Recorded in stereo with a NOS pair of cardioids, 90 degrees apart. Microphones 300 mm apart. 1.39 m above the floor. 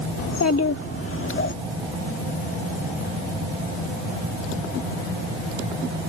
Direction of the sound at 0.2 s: 60° left.